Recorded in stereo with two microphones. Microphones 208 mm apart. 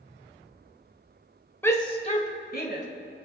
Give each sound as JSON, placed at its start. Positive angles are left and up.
{"t": 1.6, "sound": "a shout", "side_deg": 10, "distance_m": 1.1}